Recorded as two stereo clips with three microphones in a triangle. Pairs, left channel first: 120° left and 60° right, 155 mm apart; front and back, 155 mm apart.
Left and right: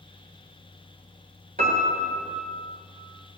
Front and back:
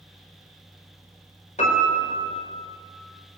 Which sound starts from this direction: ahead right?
A piano, at 1.6 s.